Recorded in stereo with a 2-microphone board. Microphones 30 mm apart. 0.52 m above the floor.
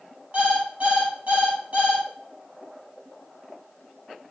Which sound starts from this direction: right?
An alarm clock, at 0.3 s.